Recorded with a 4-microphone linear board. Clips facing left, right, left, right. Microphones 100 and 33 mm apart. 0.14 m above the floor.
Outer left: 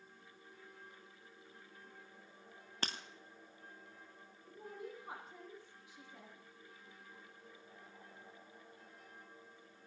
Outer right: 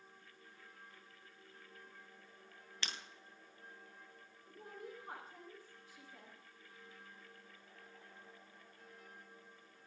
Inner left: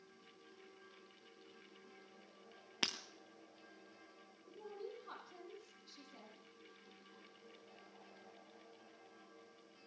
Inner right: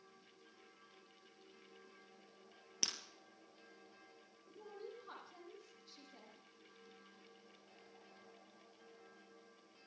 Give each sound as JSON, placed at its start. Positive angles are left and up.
{"t": 2.8, "sound": "breaking glass", "side_deg": 40, "distance_m": 1.3}
{"t": 4.5, "sound": "a woman speaking", "side_deg": 10, "distance_m": 6.0}